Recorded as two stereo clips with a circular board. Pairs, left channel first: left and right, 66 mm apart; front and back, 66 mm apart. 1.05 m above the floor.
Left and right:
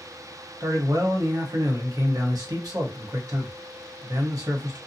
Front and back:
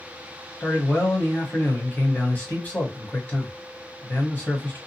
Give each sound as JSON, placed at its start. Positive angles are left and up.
{"t": 0.6, "sound": "a man speaking", "azimuth_deg": -65, "distance_m": 1.1}